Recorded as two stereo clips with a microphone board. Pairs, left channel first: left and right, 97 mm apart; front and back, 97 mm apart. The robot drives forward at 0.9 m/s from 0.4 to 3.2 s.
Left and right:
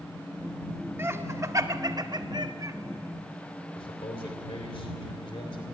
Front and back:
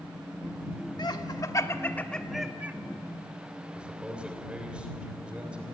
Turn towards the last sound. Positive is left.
turn(degrees=100)